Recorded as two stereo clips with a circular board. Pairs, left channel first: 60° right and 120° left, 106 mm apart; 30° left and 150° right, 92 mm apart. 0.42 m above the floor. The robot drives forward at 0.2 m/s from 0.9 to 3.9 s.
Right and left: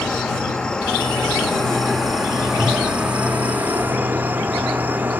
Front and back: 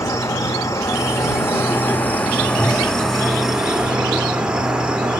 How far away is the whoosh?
About 3 m.